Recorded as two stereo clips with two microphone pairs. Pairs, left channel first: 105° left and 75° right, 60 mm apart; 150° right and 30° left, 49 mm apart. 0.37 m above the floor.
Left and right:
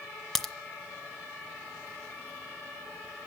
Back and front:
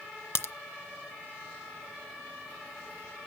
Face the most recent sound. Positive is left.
turn(degrees=-170)